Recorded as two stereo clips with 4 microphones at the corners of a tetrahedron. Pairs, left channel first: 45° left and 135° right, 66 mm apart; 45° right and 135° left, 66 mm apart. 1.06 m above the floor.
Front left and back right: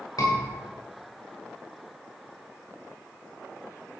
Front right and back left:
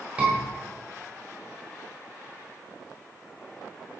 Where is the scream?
65° left, 5.5 m.